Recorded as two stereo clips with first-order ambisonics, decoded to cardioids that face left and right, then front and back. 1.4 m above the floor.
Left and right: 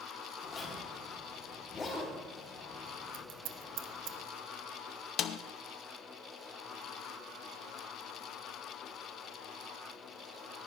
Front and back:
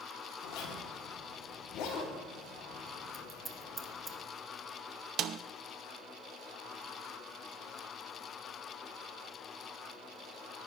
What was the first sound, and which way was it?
A zipper, 25° left.